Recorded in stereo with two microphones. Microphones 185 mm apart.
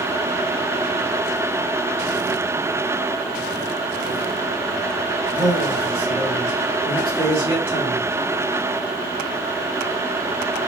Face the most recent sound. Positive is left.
turn(degrees=30)  # may be behind; listen again after turning